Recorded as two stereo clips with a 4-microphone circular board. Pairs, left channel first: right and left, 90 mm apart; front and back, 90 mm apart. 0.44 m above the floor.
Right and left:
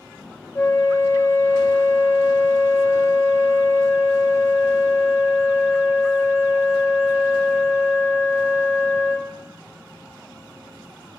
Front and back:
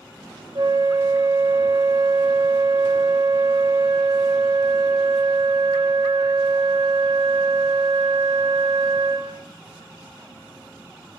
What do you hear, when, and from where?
0.6 s a flute: 140° right, 1.1 m